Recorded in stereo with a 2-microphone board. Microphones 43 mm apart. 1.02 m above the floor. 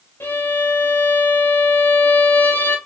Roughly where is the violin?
Left.